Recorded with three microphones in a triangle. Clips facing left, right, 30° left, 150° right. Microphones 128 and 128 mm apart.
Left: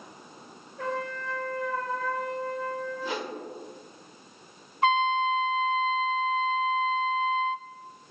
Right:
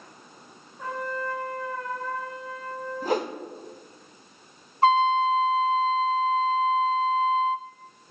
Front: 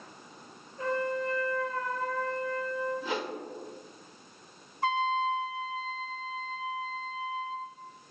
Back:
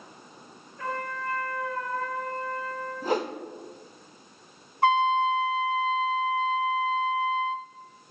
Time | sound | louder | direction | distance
0.8 | a trumpet | right 1 dB, front 3 dB | 95° left | 2.0 m
3.0 | a whoosh | right 7 dB, back 6 dB | 115° right | 0.8 m
4.8 | a trumpet | right 4 dB, back 7 dB | 145° right | 0.6 m